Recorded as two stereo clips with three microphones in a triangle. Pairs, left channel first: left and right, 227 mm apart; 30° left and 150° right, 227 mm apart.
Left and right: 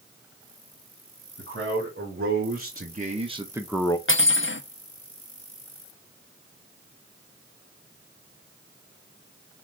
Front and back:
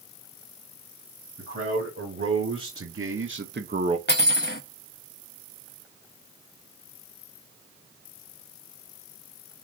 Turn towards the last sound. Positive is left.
turn(degrees=65)